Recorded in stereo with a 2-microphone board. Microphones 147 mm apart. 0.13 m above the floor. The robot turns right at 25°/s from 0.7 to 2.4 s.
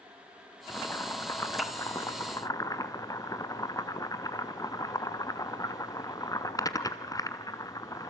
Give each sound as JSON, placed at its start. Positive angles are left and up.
{"t": 0.7, "sound": "boiling", "side_deg": 15, "distance_m": 1.2}